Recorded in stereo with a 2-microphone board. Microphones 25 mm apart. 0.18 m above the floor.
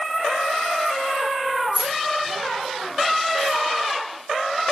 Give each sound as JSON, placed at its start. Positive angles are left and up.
{"t": 1.7, "sound": "keys jangling", "side_deg": -20, "distance_m": 1.3}